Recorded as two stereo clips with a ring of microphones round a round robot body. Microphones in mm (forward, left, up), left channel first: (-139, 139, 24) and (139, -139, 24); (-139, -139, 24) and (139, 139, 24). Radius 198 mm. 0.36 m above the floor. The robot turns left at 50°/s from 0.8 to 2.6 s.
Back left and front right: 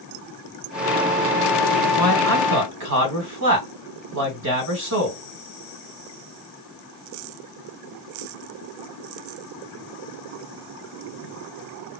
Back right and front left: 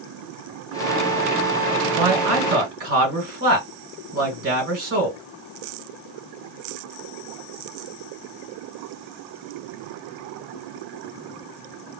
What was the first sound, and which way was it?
A man speaking, 25° left.